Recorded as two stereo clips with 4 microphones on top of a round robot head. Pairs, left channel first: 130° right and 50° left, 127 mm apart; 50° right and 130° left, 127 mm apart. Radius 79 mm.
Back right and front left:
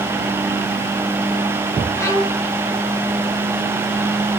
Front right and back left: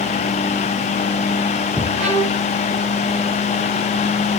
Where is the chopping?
No chopping in this recording.